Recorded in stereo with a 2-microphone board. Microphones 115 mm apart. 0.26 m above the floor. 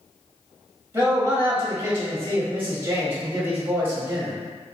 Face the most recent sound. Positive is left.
turn(degrees=-20)  # may be behind; listen again after turning